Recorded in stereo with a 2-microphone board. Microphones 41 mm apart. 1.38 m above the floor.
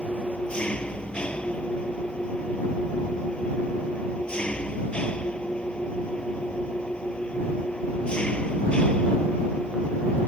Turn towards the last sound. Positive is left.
turn(degrees=25)  # may be behind; listen again after turning